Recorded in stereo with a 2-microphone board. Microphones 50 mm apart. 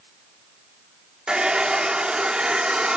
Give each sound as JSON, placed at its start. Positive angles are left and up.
{"t": 1.3, "sound": "a hair dryer", "side_deg": -20}